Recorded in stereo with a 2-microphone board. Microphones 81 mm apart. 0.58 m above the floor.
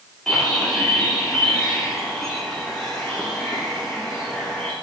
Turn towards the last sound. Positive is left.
turn(degrees=5)  # may be behind; listen again after turning